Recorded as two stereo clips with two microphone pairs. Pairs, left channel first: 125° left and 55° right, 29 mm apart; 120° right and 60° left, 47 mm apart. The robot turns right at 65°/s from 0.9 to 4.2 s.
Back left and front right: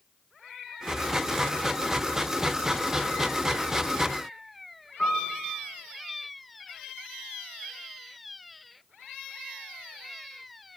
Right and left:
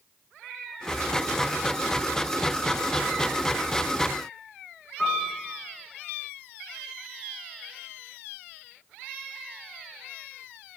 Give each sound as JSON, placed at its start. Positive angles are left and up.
{"t": 5.0, "sound": "a piano", "azimuth_deg": 160, "distance_m": 3.0}